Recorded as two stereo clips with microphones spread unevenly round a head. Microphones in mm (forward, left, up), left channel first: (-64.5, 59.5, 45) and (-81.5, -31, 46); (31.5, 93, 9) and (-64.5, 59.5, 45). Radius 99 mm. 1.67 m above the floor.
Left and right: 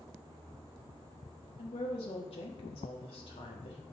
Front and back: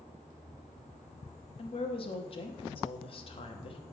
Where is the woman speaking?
55° left, 1.0 m.